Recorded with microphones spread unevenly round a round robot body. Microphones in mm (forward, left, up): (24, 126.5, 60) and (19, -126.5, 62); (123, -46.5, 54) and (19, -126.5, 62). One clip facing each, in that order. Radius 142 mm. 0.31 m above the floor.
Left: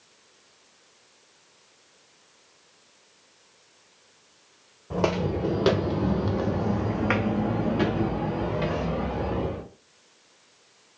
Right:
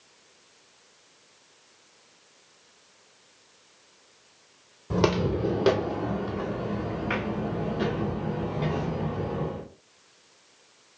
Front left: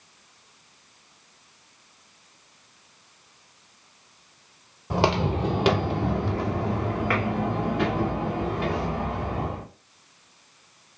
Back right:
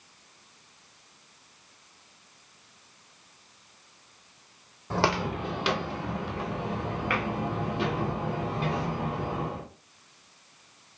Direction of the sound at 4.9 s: 40° right.